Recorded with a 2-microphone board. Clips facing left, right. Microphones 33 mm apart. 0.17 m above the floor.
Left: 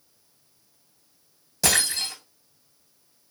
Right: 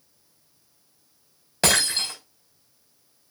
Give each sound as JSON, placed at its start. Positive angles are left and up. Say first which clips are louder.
{"t": 1.6, "sound": "breaking glass", "louder": "right 2 dB", "side_deg": -45, "distance_m": 5.0}